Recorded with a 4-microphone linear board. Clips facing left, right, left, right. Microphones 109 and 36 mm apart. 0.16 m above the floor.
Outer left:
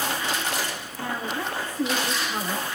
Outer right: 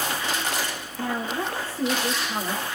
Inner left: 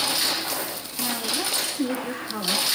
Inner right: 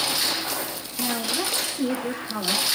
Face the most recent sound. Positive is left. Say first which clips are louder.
# outer right 2 dB, inner right 1 dB
turn(degrees=-30)  # may be behind; listen again after turning